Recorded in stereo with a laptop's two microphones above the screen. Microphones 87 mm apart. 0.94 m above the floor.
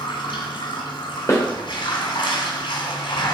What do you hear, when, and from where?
0.0 s running water: 70° left (ahead or behind), 2.5 m
1.3 s a snare drum: 35° left (ahead or behind), 2.5 m